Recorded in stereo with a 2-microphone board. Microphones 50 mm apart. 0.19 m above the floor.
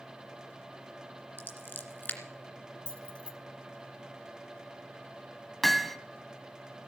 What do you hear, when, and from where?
1.4 s scissors: 40° left (ahead or behind), 2 m
2.9 s keys jangling: 20° left (ahead or behind), 1.1 m
5.6 s hammering: 5° left (ahead or behind), 1.1 m